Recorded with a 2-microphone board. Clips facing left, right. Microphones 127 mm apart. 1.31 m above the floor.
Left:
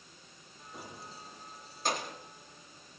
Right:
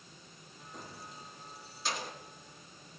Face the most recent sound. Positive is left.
turn(degrees=55)  # may be behind; listen again after turning